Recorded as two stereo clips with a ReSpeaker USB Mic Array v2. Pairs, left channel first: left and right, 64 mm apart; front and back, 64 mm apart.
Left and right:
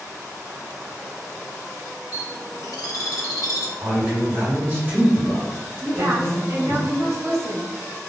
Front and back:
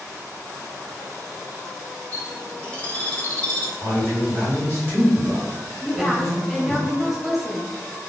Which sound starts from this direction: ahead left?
A bird, at 2.1 s.